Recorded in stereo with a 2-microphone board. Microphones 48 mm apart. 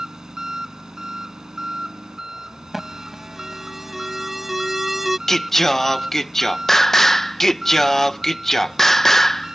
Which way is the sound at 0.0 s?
10° right (ahead or behind).